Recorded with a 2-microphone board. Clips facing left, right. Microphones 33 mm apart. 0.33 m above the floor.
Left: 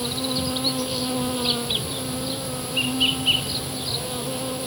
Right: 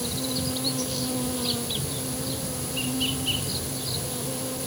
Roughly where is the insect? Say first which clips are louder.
Left 4 dB; left.